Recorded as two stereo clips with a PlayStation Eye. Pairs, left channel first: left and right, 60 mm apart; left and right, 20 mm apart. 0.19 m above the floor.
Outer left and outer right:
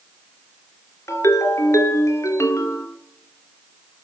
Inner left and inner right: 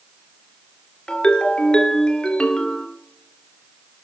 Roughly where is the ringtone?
Left.